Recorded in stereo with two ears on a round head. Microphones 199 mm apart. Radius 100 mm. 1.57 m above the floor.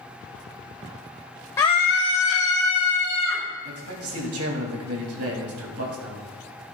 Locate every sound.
1.6 s a scream: 10° left (ahead or behind), 0.6 m; by 3.4 s 80° left, 2 m
3.6 s a man speaking: 75° right (ahead or behind), 3 m